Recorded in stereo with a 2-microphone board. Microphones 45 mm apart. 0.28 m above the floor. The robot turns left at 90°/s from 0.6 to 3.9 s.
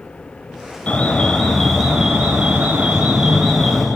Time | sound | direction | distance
0.9 | an alarm | 25° left (ahead or behind) | 1.7 m